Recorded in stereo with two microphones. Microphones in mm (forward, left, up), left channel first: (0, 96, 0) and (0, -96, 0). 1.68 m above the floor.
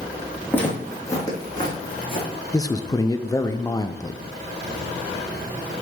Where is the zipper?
I don't hear a zipper.